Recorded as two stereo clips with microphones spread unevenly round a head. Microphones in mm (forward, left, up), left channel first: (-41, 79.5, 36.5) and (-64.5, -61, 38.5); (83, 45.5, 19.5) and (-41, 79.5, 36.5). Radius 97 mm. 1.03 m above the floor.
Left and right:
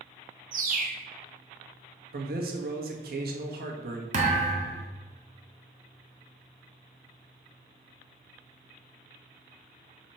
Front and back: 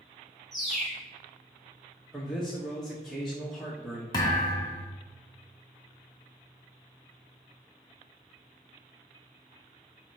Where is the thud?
85° right, 0.9 m.